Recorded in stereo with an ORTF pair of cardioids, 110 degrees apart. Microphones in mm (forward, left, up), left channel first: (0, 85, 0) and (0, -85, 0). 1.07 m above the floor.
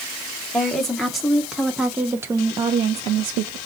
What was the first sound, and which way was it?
A woman speaking, 5° left.